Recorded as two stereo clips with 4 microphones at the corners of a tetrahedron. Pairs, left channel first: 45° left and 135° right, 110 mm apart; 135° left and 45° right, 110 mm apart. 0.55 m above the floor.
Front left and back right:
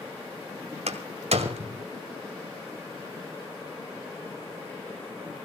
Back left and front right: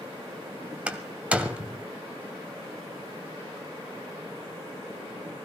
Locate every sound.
0.9 s a door slam: 125° right, 1.6 m